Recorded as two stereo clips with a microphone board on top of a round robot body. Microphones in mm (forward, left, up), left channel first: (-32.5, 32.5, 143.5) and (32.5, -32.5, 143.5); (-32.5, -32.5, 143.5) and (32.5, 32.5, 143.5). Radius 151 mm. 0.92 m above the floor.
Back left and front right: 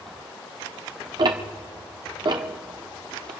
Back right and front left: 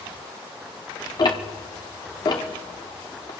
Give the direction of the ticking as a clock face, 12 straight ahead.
3 o'clock.